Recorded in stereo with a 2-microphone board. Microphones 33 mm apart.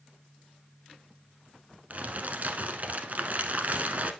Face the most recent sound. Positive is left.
turn(degrees=-50)  # may be behind; listen again after turning